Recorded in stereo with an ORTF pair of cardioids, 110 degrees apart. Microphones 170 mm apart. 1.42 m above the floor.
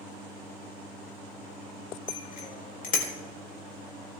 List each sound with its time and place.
2.1 s a bicycle bell: 55° left, 4 m